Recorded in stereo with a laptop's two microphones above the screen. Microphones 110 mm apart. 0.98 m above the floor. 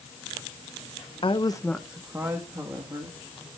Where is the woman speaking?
55° left (ahead or behind), 0.9 m; by 3.2 s 40° right (ahead or behind), 2.5 m.